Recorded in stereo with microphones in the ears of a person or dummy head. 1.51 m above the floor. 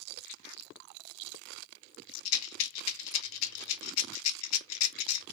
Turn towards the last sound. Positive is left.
turn(degrees=80)